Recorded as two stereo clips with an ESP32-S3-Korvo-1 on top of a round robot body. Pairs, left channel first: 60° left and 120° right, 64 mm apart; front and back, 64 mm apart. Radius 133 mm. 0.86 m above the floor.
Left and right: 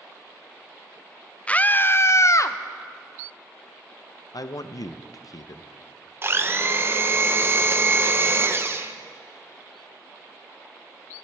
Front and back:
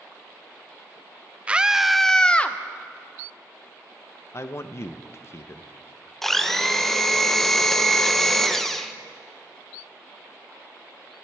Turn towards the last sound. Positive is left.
turn(degrees=-85)